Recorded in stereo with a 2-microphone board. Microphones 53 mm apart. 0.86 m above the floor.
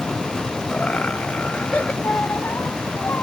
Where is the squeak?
40° left (ahead or behind).